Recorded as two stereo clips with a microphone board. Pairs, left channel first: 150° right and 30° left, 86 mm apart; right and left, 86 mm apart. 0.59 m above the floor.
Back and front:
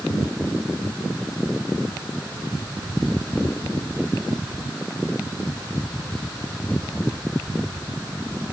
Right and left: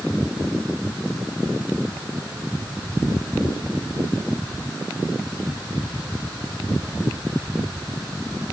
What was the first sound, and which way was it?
Only background noise.